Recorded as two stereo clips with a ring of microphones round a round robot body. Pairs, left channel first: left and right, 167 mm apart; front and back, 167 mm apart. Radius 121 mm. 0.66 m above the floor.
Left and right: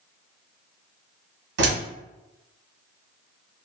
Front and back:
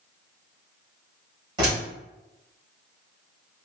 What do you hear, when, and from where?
1.6 s a door slam: 110° right, 1.5 m